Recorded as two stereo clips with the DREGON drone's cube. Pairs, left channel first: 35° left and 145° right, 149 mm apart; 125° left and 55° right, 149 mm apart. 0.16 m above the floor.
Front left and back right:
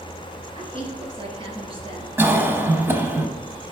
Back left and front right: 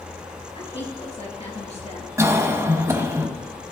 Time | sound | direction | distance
0.6 | a woman speaking | 165° left | 3 m
2.2 | a cough | 90° right | 1.0 m